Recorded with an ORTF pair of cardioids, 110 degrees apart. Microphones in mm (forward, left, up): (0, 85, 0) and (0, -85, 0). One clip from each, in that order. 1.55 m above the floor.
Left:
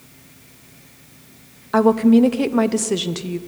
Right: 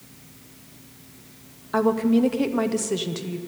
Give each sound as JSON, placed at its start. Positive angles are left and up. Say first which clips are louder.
{"t": 1.7, "sound": "a woman speaking", "louder": "left 6 dB", "azimuth_deg": 20, "distance_m": 0.6}